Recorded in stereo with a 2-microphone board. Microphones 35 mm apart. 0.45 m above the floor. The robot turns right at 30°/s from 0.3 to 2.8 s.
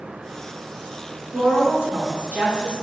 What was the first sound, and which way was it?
A woman speaking, 90° right.